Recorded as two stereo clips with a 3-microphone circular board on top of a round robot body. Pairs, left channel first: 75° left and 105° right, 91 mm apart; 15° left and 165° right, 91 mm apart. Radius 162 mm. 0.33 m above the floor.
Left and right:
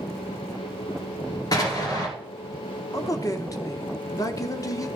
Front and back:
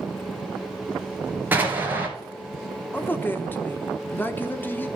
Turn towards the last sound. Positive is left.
turn(degrees=70)